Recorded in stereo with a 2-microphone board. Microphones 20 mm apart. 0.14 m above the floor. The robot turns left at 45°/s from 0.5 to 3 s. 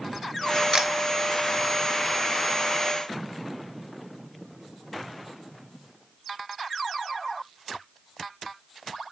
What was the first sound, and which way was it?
A camera shutter, 30° right (ahead or behind).